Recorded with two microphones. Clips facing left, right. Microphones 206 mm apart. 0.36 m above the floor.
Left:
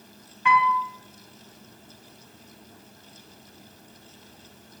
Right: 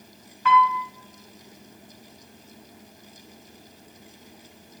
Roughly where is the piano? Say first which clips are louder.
Right 3 dB; centre.